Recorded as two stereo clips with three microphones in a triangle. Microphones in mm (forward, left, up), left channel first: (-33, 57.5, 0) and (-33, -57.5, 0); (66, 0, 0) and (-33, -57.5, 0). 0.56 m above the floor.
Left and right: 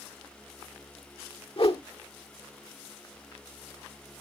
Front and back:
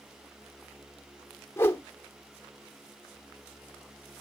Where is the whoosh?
90° left, 0.8 m.